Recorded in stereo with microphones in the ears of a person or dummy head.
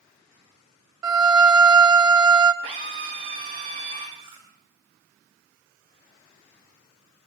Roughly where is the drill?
Right.